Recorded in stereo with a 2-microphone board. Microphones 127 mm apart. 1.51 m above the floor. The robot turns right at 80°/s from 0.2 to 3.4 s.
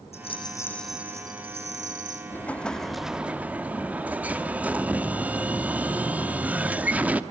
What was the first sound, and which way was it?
A rattle, 125° left.